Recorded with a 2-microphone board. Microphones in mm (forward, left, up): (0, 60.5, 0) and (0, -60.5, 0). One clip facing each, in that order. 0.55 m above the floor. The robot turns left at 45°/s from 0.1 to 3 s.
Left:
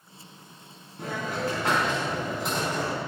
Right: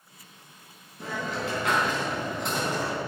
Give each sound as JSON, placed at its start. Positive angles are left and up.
{"t": 1.0, "sound": "a hiss", "azimuth_deg": 65, "distance_m": 4.5}